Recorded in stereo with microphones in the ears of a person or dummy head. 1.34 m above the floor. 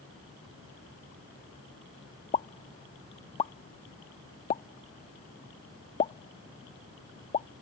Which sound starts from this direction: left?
A pop, at 2.3 s.